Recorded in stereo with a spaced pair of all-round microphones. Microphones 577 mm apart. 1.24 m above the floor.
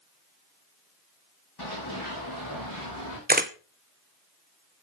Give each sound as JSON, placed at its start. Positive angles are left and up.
{"t": 1.6, "sound": "running footsteps", "side_deg": 40, "distance_m": 4.0}
{"t": 3.3, "sound": "a camera shutter", "side_deg": -15, "distance_m": 0.9}